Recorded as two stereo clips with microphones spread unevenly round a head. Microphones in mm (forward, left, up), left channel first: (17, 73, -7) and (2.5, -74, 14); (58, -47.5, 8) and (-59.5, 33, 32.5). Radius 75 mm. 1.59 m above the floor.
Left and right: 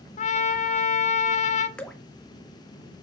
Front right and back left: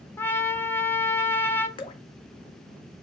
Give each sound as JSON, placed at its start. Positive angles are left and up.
{"t": 0.2, "sound": "a trumpet", "azimuth_deg": 40, "distance_m": 0.9}
{"t": 1.8, "sound": "dripping", "azimuth_deg": -10, "distance_m": 0.8}